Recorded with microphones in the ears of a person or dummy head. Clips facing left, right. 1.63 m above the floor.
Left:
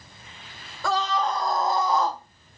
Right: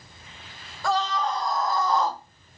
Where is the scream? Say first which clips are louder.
Even; 60° left (ahead or behind), 1.1 m; by 2.2 s 10° right (ahead or behind), 0.8 m.